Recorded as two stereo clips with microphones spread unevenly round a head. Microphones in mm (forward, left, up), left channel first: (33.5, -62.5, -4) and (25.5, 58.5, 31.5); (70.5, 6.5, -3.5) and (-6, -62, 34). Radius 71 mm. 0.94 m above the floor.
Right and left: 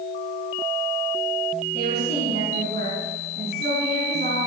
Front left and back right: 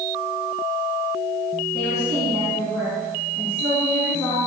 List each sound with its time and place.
1.7 s a woman speaking: 120° left, 9 m